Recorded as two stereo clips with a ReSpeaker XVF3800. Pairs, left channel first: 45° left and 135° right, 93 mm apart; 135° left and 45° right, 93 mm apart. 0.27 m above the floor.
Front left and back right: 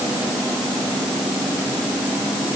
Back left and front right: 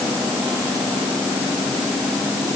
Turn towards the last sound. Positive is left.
No sound to turn to.